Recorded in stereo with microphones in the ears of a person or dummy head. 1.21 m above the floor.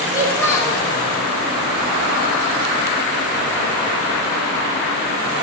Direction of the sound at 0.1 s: 15° left (ahead or behind).